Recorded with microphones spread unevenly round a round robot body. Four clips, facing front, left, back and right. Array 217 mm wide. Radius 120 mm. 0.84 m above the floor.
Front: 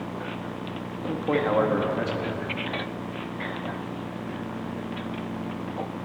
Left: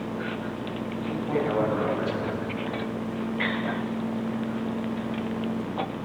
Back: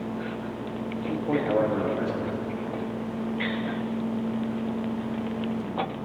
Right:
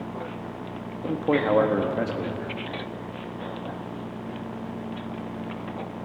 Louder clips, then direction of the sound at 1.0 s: Right 5 dB, front 2 dB; 90° right.